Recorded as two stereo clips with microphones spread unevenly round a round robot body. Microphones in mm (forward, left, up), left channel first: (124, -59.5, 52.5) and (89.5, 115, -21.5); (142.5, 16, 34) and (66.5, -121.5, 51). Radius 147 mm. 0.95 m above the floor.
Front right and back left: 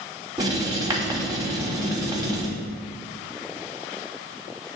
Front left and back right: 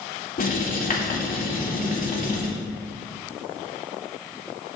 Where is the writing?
40° left, 3 m.